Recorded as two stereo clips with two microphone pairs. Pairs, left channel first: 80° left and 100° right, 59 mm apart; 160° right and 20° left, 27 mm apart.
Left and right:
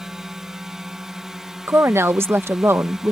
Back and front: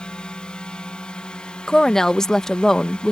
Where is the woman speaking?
100° right.